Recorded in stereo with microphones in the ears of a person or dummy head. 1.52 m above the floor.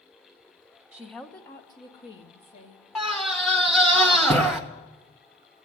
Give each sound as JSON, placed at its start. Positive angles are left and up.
{"t": 0.9, "sound": "a woman speaking", "side_deg": -20, "distance_m": 0.8}
{"t": 3.0, "sound": "a scream", "side_deg": 0, "distance_m": 1.4}